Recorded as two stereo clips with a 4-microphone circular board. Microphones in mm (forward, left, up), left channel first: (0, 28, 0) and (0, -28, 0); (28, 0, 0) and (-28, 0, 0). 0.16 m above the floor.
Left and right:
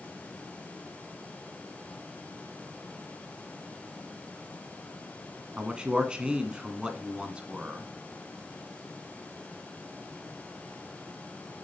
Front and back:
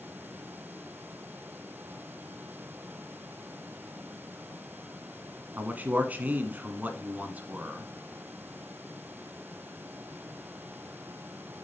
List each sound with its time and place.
5.6 s a man speaking: 150° right, 1.4 m